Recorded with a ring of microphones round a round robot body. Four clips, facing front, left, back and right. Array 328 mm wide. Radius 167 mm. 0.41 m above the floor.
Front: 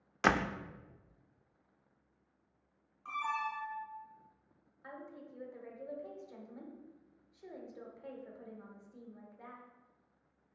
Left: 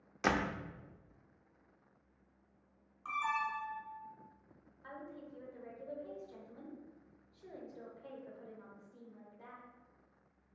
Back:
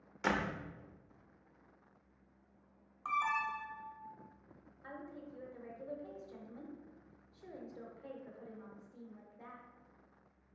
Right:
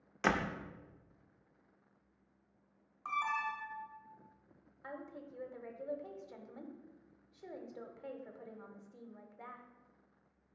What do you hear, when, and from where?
0.2 s a door slam: 5° right, 0.5 m
3.0 s an alarm: 160° right, 1.7 m
4.8 s a woman speaking: 85° right, 1.1 m